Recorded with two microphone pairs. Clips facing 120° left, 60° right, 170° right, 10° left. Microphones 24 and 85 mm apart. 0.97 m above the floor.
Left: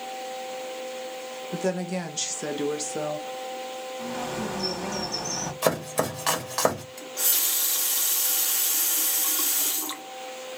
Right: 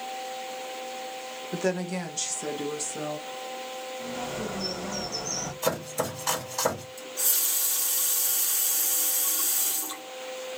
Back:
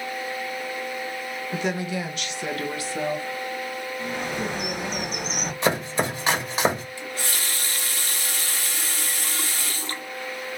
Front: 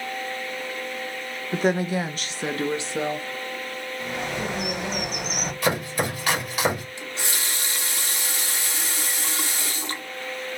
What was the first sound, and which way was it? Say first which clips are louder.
A woman speaking: even, front 5 dB; 15° right.